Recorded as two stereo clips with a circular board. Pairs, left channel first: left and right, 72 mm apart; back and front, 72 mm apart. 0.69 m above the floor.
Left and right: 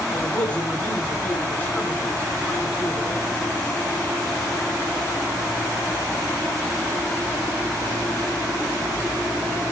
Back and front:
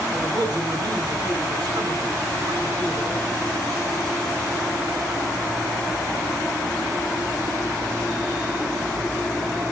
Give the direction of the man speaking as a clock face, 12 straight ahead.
11 o'clock.